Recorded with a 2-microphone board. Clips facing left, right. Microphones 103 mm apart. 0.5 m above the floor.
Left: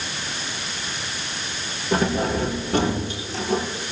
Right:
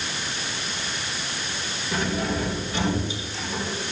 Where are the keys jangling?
55° left (ahead or behind), 8.5 m; by 3.6 s 70° left (ahead or behind), 7 m.